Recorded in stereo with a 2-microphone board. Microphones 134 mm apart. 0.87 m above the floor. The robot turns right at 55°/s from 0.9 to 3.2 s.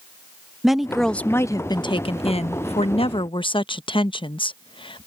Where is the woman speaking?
Straight ahead; by 5.1 s 125° left.